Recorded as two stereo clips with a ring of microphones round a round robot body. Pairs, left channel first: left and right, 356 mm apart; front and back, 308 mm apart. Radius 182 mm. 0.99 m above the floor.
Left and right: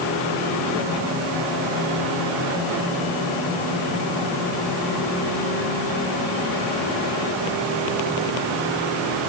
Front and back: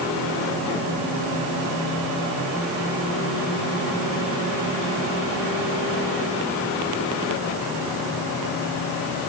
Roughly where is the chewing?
I don't hear chewing.